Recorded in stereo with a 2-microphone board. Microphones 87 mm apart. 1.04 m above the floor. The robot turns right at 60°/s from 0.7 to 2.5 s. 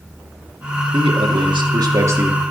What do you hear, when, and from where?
0.9 s a man speaking: 105° right, 1.6 m; by 2.4 s 15° right, 1.6 m